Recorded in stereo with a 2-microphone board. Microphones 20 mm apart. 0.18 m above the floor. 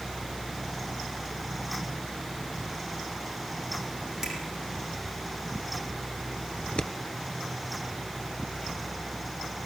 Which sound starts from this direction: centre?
A finger snap, at 4.2 s.